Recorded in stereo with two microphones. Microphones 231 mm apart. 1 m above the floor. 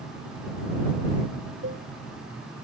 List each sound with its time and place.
1.6 s a cowbell: 60° right (ahead or behind)